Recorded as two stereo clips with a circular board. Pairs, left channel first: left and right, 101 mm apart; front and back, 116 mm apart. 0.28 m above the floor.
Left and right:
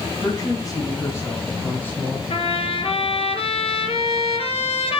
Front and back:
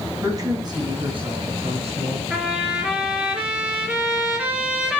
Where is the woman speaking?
120° left, 2 m; by 2.2 s 165° left, 3.5 m.